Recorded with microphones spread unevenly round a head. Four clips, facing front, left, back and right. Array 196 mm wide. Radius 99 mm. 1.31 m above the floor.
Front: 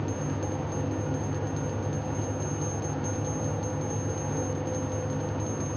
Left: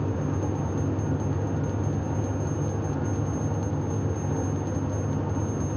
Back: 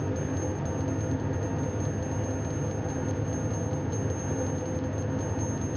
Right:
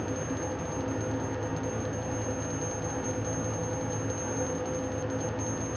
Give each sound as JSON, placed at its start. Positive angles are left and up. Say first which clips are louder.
{"t": 0.0, "sound": "a fan", "louder": "left 4 dB, back 1 dB", "azimuth_deg": 100, "distance_m": 4.0}